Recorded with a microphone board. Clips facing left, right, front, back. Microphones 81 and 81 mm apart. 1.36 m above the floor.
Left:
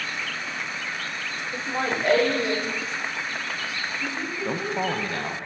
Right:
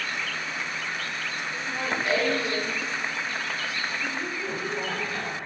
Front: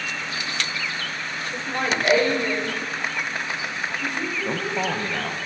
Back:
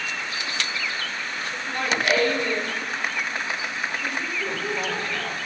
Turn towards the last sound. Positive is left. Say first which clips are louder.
# left 8 dB, front 4 dB
turn(degrees=60)